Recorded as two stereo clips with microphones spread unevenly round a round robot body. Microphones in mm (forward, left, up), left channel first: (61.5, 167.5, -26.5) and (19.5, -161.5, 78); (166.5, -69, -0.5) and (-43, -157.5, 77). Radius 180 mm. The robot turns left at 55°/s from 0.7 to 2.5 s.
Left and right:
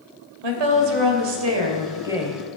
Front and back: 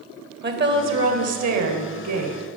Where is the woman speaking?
110° right, 3 m; by 2.4 s 160° left, 3 m.